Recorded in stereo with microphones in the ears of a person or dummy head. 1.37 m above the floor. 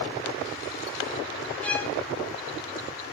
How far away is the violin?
About 3 m.